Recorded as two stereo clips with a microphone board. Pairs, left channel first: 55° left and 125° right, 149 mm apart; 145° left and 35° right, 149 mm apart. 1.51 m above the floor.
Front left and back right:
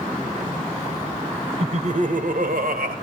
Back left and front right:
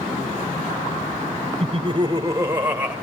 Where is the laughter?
80° right, 1.1 m; by 3.0 s 120° right, 1.6 m.